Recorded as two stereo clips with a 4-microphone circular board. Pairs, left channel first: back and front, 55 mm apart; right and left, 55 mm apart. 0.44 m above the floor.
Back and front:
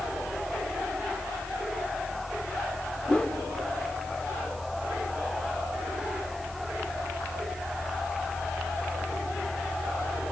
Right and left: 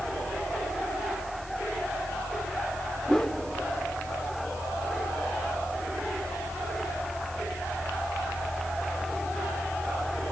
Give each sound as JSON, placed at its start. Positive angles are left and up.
{"t": 3.1, "sound": "a whoosh", "azimuth_deg": -150, "distance_m": 1.4}